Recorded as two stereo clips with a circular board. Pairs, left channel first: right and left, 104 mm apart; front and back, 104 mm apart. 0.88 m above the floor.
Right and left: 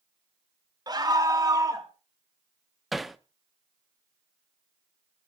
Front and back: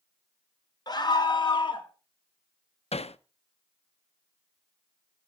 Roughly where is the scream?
Ahead left.